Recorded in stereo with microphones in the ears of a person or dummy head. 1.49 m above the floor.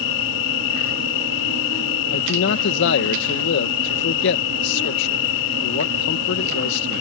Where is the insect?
70° left (ahead or behind).